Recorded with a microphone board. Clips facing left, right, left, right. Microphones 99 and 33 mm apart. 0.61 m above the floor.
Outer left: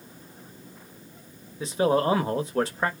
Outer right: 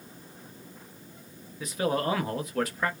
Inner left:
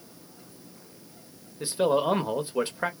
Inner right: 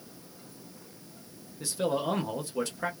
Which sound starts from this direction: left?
A man speaking, at 1.6 s.